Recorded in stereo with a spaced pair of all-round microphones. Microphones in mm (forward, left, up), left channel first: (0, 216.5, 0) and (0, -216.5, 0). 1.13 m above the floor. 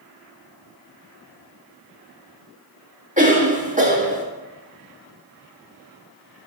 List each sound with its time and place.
3.2 s a cough: 15° right (ahead or behind), 1.5 m